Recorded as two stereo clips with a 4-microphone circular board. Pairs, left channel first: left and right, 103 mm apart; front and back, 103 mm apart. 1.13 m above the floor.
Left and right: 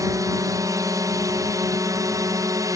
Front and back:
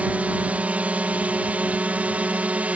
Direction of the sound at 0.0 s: 115° right.